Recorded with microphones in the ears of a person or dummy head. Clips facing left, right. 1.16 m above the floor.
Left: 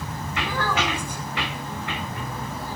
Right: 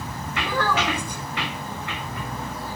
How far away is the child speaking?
About 3 m.